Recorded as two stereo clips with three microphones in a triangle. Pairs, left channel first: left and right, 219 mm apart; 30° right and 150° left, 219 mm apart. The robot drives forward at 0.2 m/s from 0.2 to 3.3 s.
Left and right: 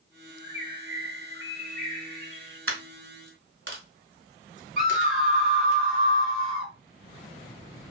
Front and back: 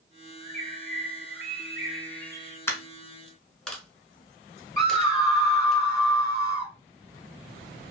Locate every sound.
0.4 s a bird: 135° left, 1.5 m; by 2.6 s 150° left, 1.8 m
2.7 s a dropped coin: 110° right, 0.9 m; by 5.8 s 115° right, 0.9 m
4.8 s a scream: straight behind, 2 m